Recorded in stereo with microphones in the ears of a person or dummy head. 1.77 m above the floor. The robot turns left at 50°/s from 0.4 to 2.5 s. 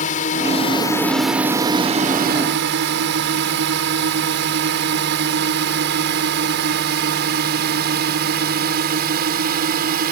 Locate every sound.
0.0 s a drone: 40° left (ahead or behind); by 10.1 s 50° right (ahead or behind)